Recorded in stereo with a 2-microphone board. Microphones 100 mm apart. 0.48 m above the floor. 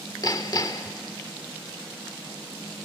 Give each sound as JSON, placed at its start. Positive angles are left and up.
{"t": 0.2, "sound": "hammering", "side_deg": 40, "distance_m": 0.9}